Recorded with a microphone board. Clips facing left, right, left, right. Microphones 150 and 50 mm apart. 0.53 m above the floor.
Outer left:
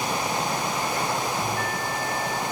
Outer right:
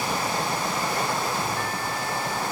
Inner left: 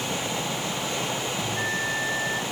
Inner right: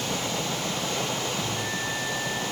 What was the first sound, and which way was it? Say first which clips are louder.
A bell: outer left 1 dB, inner left 3 dB; 40° left (ahead or behind).